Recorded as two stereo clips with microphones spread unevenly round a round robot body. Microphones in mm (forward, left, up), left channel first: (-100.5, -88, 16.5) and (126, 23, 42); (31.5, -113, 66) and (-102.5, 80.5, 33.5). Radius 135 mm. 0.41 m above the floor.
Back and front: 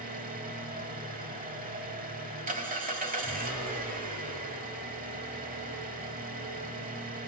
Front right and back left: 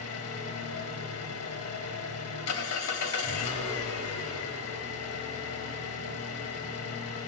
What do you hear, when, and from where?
0.0 s an engine running: 35° right, 2.5 m